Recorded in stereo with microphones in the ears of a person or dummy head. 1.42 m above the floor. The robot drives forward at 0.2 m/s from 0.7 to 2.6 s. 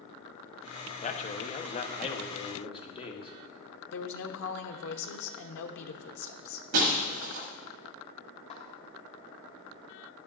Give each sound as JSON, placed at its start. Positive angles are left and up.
{"t": 1.0, "sound": "a man speaking", "side_deg": 40, "distance_m": 0.8}
{"t": 3.9, "sound": "a woman speaking", "side_deg": 75, "distance_m": 0.9}
{"t": 6.7, "sound": "breaking glass", "side_deg": -45, "distance_m": 1.2}
{"t": 8.5, "sound": "a snare drum", "side_deg": 40, "distance_m": 1.3}